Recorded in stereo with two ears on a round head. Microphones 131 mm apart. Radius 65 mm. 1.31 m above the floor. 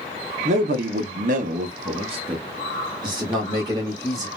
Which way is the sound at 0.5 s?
50° right (ahead or behind).